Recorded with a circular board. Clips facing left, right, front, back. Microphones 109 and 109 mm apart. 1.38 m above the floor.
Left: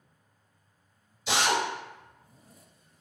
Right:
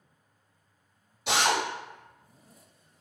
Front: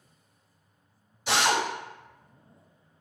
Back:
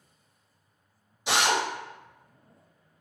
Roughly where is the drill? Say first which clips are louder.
Right 1 dB, even; right.